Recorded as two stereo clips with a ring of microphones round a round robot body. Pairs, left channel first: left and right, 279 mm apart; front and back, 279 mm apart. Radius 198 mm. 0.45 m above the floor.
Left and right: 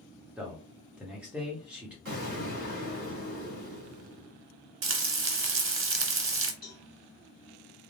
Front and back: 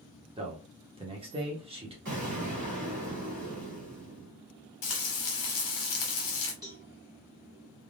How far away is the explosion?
About 2.0 m.